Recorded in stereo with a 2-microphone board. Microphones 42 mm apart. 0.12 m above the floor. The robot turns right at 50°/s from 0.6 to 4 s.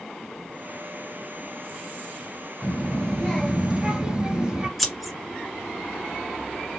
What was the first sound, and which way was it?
A child speaking, 140° left.